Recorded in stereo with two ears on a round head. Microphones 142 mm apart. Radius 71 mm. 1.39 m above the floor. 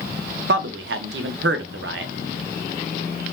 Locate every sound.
0.5 s a man speaking: 80° right, 0.6 m